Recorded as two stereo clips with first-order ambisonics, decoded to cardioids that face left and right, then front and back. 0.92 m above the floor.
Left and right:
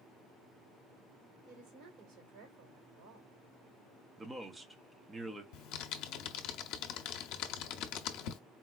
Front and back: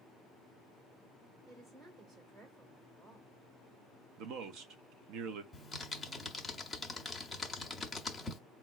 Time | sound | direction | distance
1.4 | a woman speaking | 125° right | 3 m
4.2 | a man speaking | 170° right | 0.7 m
5.5 | typing on a keyboard | 80° left | 0.6 m